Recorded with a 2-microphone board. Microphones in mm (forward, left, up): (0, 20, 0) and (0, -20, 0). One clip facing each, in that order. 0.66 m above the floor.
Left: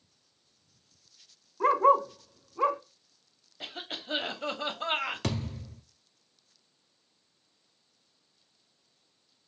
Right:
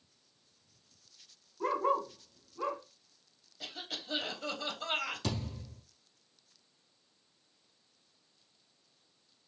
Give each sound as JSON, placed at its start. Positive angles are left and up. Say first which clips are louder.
{"t": 1.6, "sound": "a dog barking", "louder": "left 9 dB", "side_deg": 60, "distance_m": 0.8}
{"t": 3.6, "sound": "a cough", "louder": "left 3 dB", "side_deg": 35, "distance_m": 1.0}
{"t": 5.2, "sound": "a thud", "louder": "left 4 dB", "side_deg": 60, "distance_m": 1.1}